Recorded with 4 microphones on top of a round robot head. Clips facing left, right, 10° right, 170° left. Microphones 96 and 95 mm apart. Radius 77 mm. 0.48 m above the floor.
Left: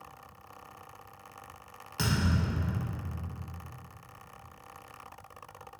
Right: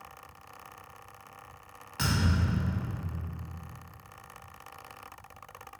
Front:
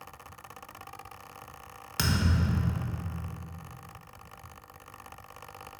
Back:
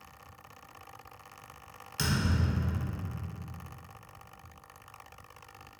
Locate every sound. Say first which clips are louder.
2.0 s a thud: even, front 2 dB; 20° left, 0.5 m